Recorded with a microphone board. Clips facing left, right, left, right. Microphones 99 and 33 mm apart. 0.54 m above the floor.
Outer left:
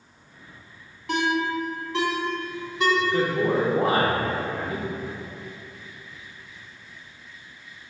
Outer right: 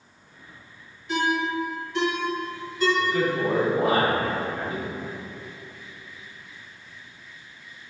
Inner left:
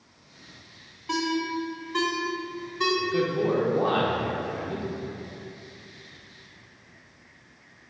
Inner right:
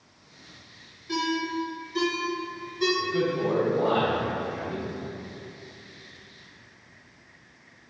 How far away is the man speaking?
About 1.7 m.